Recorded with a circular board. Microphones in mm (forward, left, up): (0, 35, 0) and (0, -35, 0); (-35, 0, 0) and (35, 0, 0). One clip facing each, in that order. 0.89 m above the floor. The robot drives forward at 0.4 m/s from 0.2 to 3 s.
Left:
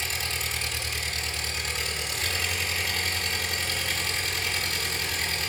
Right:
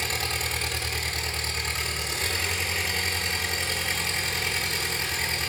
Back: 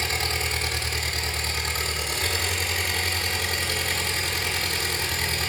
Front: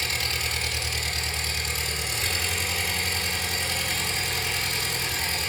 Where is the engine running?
120° right, 1.1 m; by 5.5 s 155° right, 1.9 m.